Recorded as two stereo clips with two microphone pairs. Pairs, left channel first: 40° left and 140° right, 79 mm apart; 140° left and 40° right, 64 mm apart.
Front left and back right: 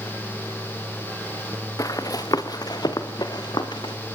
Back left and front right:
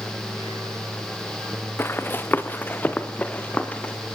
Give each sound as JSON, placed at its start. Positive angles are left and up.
{"t": 1.8, "sound": "running footsteps", "azimuth_deg": 85, "distance_m": 2.0}